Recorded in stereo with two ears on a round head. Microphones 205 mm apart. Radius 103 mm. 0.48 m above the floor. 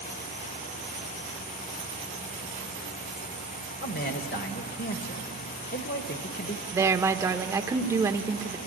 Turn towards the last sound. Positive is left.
turn(degrees=-15)  # may be behind; listen again after turning